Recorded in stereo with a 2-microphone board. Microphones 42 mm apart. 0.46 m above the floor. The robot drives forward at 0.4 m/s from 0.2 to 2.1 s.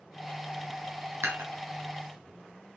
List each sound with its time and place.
1.2 s dishes clattering: 75° right (ahead or behind), 2 m; by 1.5 s 70° right (ahead or behind), 2 m